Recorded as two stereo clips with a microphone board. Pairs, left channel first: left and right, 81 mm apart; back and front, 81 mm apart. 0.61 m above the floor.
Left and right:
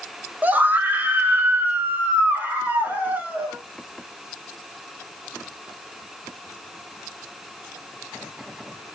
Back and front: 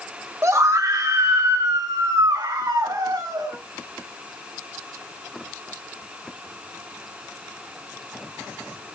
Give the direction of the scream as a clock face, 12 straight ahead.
1 o'clock.